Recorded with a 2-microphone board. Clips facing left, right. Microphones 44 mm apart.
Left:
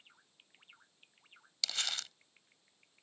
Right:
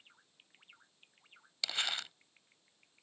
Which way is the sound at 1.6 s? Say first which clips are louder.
Right 2 dB; 20° right (ahead or behind).